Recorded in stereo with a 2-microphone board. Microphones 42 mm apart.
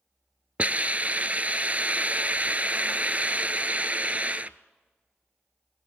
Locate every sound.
0.6 s a hiss: 40° right (ahead or behind), 0.5 m